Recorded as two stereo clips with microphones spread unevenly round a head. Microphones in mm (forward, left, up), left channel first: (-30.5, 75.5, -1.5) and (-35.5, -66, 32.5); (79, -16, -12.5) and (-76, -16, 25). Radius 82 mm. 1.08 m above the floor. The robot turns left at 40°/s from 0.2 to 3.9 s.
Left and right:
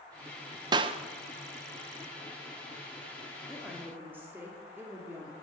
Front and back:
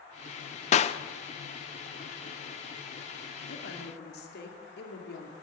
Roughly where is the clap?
Ahead right.